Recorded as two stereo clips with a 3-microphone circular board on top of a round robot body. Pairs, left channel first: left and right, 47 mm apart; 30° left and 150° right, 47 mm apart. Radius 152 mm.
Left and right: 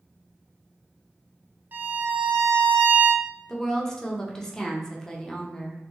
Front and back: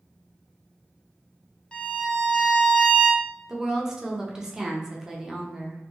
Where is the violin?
40° right, 0.5 m.